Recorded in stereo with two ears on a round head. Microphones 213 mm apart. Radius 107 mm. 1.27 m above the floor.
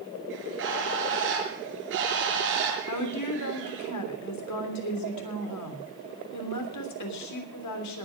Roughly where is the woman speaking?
Left.